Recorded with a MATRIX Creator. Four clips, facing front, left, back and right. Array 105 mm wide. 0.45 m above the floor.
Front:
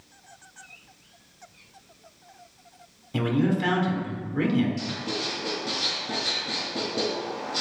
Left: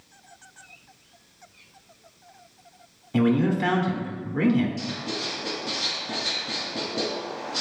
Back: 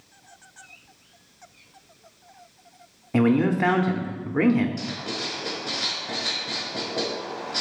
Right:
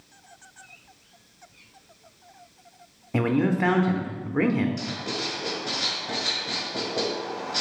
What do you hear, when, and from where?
3.1 s a man speaking: 145° right, 0.8 m
4.8 s writing: 120° right, 2 m